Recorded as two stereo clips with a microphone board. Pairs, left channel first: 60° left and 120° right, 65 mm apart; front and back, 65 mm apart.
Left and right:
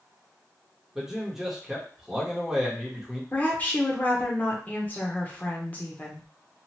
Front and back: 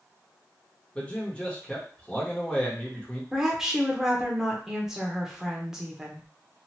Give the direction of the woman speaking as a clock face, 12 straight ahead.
9 o'clock.